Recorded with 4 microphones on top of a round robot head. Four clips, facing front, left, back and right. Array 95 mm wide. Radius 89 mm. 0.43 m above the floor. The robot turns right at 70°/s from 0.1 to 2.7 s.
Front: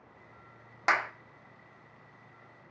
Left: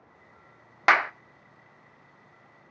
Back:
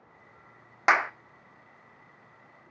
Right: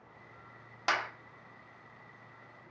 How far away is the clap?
About 0.8 m.